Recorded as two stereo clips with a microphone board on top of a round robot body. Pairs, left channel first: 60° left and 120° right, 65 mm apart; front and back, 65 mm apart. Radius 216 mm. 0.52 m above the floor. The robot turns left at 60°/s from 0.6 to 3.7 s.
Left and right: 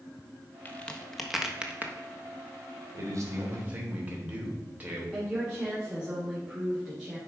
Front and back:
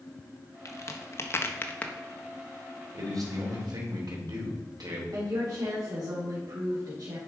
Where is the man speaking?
140° right, 3 m; by 5.0 s 175° left, 3 m.